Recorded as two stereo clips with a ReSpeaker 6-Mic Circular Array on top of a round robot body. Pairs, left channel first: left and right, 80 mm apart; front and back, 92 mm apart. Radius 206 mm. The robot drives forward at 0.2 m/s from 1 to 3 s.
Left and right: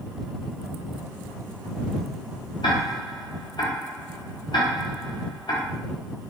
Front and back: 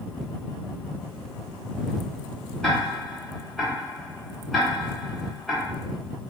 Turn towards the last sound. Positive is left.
turn(degrees=90)